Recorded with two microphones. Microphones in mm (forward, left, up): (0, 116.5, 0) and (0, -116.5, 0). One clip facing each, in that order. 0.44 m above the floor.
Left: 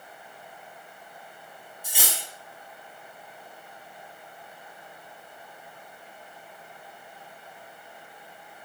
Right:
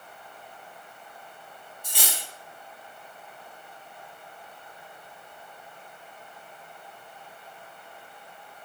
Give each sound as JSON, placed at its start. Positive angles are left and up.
{"t": 1.8, "sound": "cutlery clinking", "side_deg": 10, "distance_m": 0.8}